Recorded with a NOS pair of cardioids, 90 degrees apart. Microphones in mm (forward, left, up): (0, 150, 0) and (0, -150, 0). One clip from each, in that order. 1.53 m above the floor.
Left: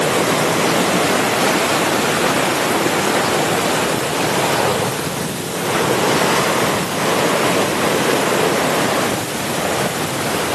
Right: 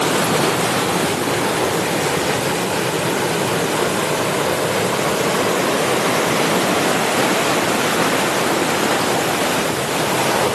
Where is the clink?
I don't hear a clink.